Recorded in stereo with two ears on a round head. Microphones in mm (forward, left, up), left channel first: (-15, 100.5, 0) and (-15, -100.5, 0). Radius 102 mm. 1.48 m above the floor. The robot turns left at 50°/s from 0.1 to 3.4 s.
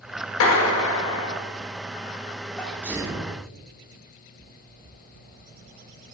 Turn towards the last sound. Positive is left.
turn(degrees=-35)